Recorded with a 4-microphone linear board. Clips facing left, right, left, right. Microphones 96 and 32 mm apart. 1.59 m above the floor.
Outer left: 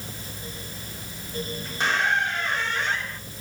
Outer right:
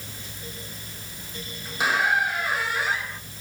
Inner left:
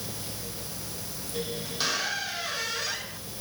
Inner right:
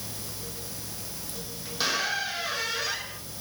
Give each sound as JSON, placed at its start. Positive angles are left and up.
{"t": 1.6, "sound": "a squeak", "side_deg": -10, "distance_m": 1.0}